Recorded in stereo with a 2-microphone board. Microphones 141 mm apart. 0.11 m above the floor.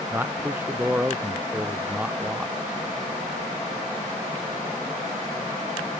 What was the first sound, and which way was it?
A man speaking, 15° right (ahead or behind).